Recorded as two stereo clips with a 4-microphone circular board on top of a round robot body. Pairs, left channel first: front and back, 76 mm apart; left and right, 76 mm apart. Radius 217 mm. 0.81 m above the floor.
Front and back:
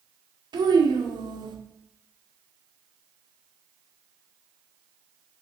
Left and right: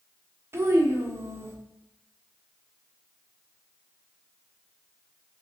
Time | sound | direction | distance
0.5 | a child speaking | 150° right | 1.5 m